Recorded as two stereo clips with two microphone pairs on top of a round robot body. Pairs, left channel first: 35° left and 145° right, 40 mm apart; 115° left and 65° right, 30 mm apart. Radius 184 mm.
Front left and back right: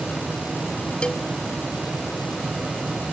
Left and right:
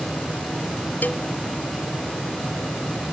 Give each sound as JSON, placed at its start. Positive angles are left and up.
{"t": 1.0, "sound": "a cowbell", "azimuth_deg": 100}